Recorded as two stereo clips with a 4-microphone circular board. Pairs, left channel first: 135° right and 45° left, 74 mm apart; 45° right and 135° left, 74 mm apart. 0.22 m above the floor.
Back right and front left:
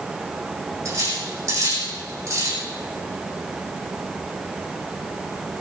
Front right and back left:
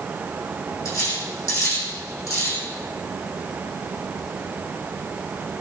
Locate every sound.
0.8 s cutlery clinking: 5° right, 7 m